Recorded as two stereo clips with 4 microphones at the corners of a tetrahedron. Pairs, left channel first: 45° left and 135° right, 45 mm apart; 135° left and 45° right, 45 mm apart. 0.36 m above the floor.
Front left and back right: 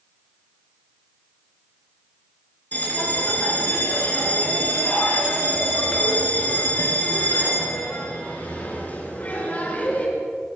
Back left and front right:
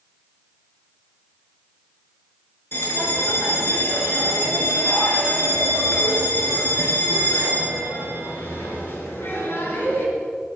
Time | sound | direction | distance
2.7 | a bell | 100° left | 5 m